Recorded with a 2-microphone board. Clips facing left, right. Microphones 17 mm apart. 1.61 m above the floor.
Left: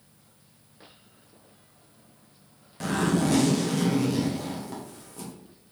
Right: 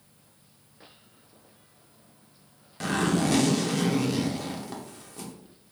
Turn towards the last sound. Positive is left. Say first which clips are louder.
# even
turn(degrees=-15)  # may be behind; listen again after turning